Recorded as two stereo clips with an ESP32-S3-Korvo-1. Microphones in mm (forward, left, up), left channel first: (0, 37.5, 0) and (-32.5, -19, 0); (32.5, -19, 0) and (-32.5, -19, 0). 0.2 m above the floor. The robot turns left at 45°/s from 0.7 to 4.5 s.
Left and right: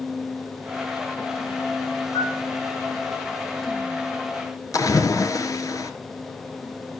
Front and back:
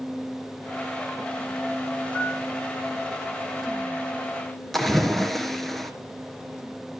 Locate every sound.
2.1 s a piano: 75° left, 5.5 m; by 2.4 s 60° left, 5.5 m
4.7 s a splash: 85° left, 1.5 m